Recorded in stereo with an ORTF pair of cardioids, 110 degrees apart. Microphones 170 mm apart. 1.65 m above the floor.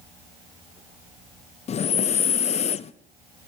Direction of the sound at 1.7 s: 40° left.